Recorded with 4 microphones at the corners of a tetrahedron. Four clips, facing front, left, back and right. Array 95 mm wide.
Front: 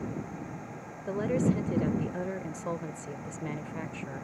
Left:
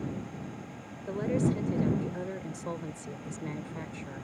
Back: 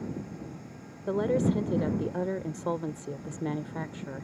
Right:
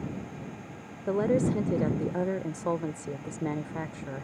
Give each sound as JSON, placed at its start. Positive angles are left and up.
{"t": 1.1, "sound": "a woman speaking", "azimuth_deg": -115}